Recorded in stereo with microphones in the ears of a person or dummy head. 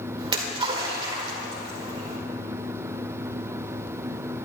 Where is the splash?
35° right (ahead or behind), 1.6 m.